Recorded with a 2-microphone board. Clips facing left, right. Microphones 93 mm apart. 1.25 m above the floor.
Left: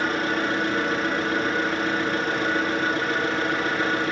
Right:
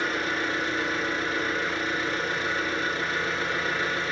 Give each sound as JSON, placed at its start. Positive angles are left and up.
{"t": 0.0, "sound": "an engine running", "side_deg": 60, "distance_m": 1.4}